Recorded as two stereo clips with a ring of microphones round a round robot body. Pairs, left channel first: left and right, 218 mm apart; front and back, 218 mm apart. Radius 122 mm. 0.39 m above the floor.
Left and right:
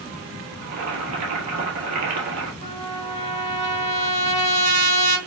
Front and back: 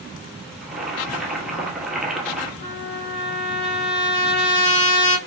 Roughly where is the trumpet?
Ahead right.